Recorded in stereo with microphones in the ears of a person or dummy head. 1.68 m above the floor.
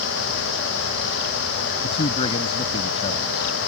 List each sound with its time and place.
1.8 s a man speaking: 35° left (ahead or behind)